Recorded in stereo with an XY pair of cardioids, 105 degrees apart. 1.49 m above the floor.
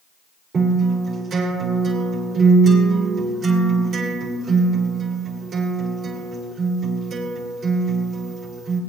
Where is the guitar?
55° right, 6.5 m.